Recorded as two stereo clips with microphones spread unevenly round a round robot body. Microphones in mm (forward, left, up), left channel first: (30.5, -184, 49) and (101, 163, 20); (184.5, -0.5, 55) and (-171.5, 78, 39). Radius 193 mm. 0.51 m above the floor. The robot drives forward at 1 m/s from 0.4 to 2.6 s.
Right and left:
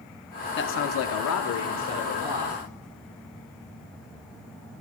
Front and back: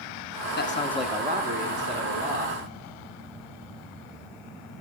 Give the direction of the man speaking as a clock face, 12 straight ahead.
2 o'clock.